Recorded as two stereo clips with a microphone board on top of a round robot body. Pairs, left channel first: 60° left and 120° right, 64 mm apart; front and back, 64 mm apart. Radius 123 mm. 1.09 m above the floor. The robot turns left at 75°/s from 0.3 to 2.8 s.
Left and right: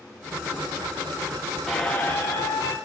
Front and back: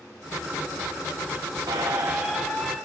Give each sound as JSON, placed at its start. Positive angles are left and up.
{"t": 1.7, "sound": "a squeak", "azimuth_deg": 150, "distance_m": 0.5}